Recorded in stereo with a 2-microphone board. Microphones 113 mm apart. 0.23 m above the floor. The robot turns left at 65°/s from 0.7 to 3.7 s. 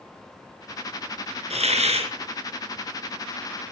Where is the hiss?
75° right, 2.5 m; by 2.1 s 115° right, 2.5 m.